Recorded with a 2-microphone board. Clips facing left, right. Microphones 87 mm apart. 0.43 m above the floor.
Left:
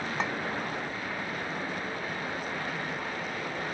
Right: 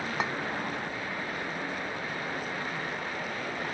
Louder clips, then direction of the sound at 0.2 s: Even; 5° right (ahead or behind).